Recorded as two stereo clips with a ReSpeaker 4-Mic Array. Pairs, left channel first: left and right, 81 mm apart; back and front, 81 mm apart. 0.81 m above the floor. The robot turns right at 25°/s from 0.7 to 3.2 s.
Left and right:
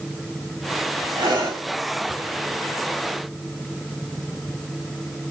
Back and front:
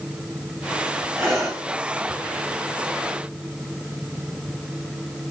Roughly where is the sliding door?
No sliding door in this recording.